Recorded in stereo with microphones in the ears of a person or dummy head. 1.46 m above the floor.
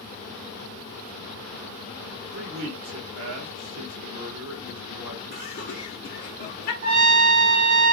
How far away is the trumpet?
About 0.9 m.